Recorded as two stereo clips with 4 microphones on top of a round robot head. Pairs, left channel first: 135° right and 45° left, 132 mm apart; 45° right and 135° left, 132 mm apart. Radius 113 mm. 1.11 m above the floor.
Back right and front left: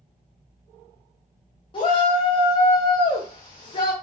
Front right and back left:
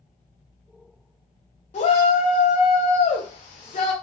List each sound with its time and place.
1.7 s a shout: 85° right, 0.5 m